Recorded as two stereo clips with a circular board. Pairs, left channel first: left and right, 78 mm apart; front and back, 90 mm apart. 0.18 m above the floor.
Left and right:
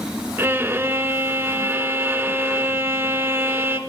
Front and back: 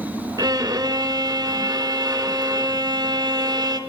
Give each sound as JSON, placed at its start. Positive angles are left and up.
{"t": 0.4, "sound": "a violin", "azimuth_deg": -150, "distance_m": 0.7}